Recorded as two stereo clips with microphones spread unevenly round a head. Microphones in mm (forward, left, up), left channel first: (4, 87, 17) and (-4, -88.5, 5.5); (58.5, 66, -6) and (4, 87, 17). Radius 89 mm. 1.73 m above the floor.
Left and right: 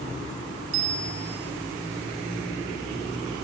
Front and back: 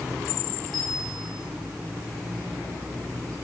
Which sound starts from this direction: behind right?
A bicycle bell, at 0.7 s.